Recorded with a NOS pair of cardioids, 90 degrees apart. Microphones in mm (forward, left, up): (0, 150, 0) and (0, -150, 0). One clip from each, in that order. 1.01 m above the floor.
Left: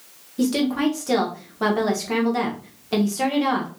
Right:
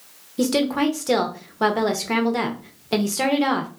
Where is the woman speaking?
20° right, 0.8 m.